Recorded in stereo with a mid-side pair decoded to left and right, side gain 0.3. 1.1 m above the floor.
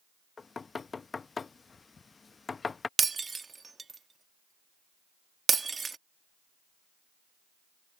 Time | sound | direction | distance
0.4 | knocking | 50° left | ?
3.0 | breaking glass | 45° right | ?